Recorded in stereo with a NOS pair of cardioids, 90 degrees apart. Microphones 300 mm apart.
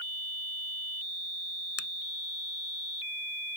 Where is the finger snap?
50° left.